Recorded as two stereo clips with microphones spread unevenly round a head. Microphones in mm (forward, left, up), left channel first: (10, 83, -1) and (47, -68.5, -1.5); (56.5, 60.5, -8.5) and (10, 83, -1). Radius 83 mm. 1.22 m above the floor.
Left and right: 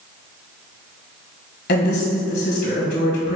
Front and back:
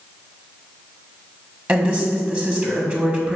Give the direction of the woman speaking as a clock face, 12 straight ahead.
9 o'clock.